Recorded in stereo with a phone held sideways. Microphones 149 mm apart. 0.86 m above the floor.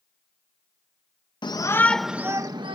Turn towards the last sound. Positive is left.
turn(degrees=-35)  # may be behind; listen again after turning